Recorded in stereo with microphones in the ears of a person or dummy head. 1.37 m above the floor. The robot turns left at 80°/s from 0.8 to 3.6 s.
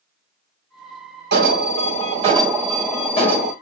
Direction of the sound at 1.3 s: 70° right.